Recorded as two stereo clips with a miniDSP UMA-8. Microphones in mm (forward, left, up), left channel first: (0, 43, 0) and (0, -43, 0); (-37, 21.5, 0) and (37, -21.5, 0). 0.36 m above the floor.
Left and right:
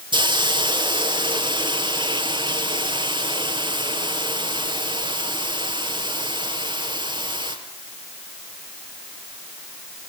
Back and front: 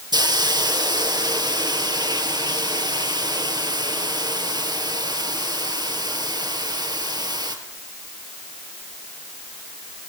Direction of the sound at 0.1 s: 65° right.